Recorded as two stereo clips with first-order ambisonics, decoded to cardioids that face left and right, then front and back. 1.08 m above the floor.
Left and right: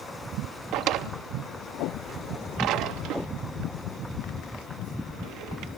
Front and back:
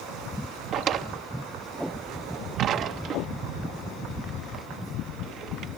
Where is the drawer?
125° right, 0.7 m.